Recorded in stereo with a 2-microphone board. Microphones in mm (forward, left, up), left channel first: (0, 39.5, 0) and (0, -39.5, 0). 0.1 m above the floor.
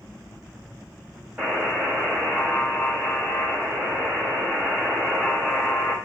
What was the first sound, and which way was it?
A buzzer, 20° right (ahead or behind).